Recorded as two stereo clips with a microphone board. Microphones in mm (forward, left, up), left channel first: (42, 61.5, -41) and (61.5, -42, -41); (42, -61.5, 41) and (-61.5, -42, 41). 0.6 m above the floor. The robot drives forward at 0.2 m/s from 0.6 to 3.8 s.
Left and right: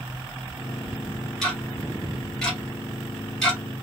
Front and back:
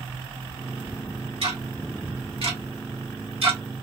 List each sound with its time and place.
1.4 s ticking: 175° right, 2 m